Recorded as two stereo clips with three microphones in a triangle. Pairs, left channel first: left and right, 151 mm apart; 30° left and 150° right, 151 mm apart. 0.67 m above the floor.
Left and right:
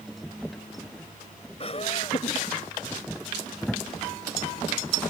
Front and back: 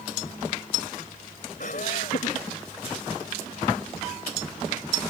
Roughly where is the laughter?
Ahead left.